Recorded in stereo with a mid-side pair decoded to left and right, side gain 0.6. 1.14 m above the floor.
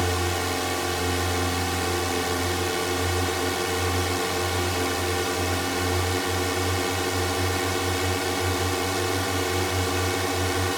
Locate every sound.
0.0 s a drone: 5° right